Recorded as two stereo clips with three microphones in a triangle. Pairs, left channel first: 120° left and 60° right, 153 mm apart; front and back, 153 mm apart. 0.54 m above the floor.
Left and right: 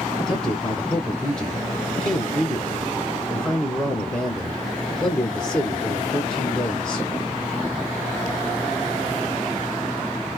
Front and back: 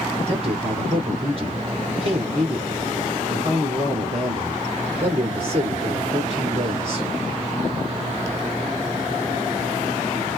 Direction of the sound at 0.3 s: 165° right.